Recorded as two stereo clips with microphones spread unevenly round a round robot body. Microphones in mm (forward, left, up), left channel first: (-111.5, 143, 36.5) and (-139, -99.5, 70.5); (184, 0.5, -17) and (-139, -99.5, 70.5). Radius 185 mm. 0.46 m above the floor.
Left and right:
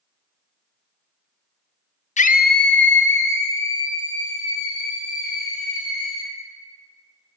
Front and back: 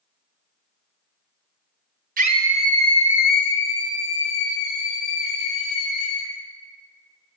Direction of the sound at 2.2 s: 125° left.